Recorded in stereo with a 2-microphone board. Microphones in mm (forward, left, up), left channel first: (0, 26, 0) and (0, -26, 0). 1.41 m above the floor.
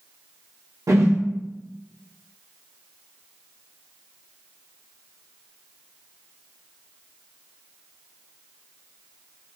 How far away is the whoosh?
About 0.5 m.